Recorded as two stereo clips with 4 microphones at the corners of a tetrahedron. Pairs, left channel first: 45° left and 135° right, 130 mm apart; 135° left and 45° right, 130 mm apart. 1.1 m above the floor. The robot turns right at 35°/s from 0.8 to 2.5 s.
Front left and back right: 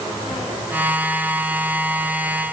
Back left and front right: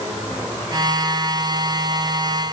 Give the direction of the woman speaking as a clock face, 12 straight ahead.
No woman speaking in this recording.